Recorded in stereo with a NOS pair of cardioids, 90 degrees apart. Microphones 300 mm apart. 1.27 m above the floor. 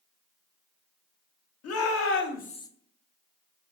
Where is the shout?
60° left, 1.2 m; by 2.7 s 10° left, 0.6 m.